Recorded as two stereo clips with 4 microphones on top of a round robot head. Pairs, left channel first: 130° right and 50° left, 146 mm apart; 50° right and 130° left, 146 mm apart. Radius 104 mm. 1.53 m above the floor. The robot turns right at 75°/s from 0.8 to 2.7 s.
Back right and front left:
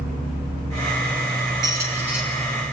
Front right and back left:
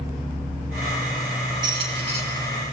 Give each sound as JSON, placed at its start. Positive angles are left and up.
{"t": 1.6, "sound": "a squeak", "azimuth_deg": 95, "distance_m": 1.4}